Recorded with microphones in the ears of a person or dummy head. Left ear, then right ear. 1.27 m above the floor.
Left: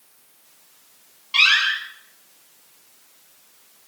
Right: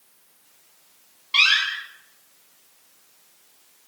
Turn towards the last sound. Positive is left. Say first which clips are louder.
# left 2 dB
turn(degrees=-5)  # may be behind; listen again after turning